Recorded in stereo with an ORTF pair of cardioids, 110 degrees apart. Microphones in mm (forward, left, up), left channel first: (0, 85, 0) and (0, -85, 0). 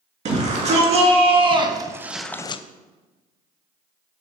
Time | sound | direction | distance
0.2 | a shout | 45° right | 2 m